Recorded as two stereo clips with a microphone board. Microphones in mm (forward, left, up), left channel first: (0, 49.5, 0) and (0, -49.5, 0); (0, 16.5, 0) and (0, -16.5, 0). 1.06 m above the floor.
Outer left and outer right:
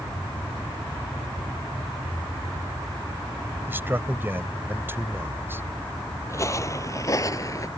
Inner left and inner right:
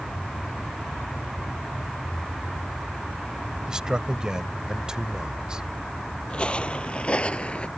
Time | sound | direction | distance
3.7 | a man speaking | 20° right (ahead or behind) | ?
6.3 | footsteps | 30° left (ahead or behind) | ?